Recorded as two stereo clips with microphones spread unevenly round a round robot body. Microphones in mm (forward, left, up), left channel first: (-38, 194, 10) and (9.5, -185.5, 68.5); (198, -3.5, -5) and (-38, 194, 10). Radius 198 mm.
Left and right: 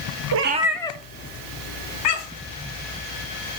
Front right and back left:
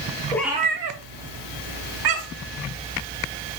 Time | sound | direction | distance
0.3 | a cat meowing | 120° right | 0.5 m